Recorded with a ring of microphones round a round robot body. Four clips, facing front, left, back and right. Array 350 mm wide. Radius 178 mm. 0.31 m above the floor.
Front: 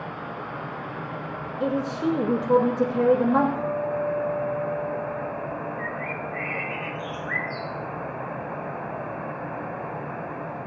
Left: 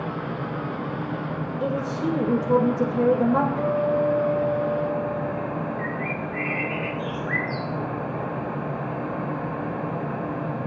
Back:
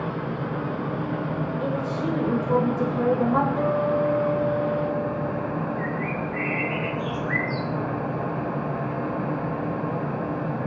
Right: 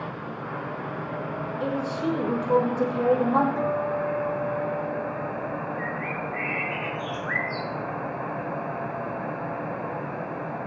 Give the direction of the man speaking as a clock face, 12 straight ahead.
11 o'clock.